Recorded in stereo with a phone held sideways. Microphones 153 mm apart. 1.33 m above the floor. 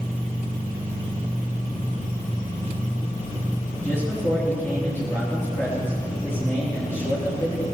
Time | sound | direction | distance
3.8 | a man speaking | 15° left (ahead or behind) | 3.5 m